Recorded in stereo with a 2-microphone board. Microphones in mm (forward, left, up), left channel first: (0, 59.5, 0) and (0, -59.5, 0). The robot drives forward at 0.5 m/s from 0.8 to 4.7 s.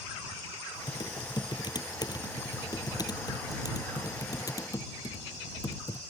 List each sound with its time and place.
0.9 s typing on a keyboard: 40° left (ahead or behind); by 6.0 s 30° left (ahead or behind)